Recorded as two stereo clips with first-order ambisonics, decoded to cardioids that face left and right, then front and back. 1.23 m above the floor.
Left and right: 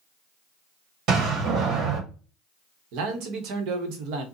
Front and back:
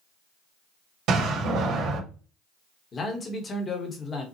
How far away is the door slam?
About 1.6 m.